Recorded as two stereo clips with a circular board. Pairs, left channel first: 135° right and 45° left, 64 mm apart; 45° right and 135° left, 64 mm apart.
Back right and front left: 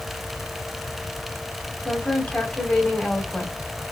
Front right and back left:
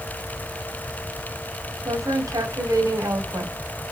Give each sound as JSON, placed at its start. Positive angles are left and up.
{"t": 1.9, "sound": "a woman speaking", "azimuth_deg": 155, "distance_m": 2.5}